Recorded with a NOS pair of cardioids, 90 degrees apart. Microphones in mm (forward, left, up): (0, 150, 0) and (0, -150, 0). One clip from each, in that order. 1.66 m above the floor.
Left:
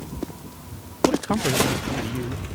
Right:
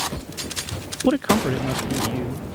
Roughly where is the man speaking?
Ahead right.